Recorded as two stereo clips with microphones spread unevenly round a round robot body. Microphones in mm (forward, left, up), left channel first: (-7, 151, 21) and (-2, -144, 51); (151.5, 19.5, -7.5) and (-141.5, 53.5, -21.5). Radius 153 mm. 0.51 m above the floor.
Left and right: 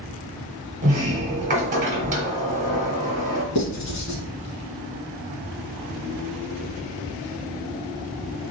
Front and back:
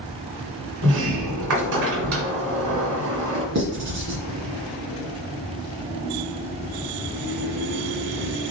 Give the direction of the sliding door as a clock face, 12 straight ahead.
5 o'clock.